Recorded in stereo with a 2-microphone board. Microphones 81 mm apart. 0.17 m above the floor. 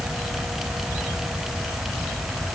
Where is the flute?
No flute in this recording.